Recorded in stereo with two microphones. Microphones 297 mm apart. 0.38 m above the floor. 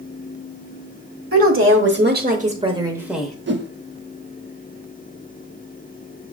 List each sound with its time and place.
1.3 s a woman speaking: 55° right (ahead or behind), 1.2 m; by 3.4 s 5° left (ahead or behind), 0.9 m
3.5 s a whoosh: 40° right (ahead or behind), 0.5 m